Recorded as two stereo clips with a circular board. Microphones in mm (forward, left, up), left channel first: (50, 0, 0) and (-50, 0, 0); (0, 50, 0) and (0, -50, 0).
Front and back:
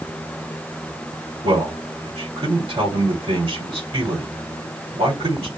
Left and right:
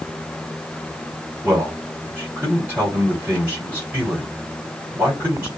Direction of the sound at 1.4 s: 160° right.